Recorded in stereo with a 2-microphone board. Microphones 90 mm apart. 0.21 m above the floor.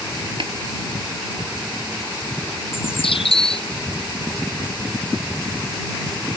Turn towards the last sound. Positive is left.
turn(degrees=85)